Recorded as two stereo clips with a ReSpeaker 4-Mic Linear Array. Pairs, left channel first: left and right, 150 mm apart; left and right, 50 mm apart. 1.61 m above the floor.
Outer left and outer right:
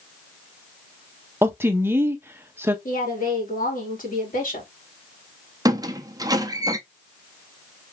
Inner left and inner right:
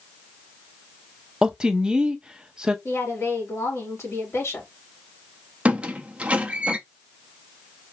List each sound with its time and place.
1.4 s a woman speaking: 15° right (ahead or behind), 0.8 m
2.9 s a woman speaking: 70° left (ahead or behind), 2 m
5.7 s a squeak: 25° right (ahead or behind), 0.6 m